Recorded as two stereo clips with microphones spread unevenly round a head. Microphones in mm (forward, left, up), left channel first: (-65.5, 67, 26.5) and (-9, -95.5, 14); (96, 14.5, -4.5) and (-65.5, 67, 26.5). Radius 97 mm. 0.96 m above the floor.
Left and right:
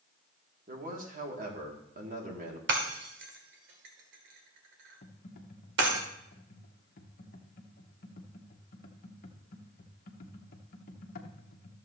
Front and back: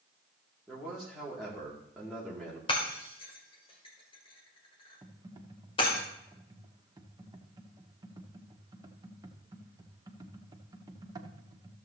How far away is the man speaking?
About 2 m.